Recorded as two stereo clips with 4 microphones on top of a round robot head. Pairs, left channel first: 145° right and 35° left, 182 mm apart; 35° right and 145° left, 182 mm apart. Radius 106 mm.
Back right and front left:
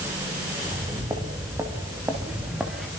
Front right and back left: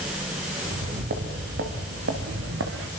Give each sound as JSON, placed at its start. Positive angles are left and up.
{"t": 0.7, "sound": "footsteps", "azimuth_deg": 105, "distance_m": 6.0}